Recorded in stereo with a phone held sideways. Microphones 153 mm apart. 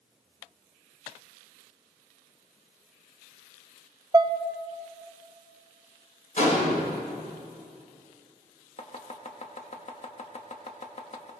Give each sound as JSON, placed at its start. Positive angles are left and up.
{"t": 4.1, "sound": "dishes clattering", "side_deg": -20, "distance_m": 0.5}
{"t": 6.4, "sound": "a gunshot", "side_deg": 55, "distance_m": 5.5}
{"t": 8.8, "sound": "chopping", "side_deg": 45, "distance_m": 1.3}